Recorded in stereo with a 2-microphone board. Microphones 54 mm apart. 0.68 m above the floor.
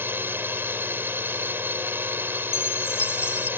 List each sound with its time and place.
0.0 s a drone: 45° right (ahead or behind)
2.5 s a chime: 50° left (ahead or behind)